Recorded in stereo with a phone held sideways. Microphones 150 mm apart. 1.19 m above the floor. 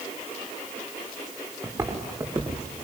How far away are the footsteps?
About 6.5 m.